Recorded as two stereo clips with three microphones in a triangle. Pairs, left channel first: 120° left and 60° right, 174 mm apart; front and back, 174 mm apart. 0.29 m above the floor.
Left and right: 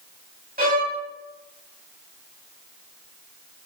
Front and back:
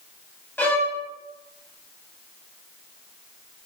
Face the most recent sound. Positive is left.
turn(degrees=-80)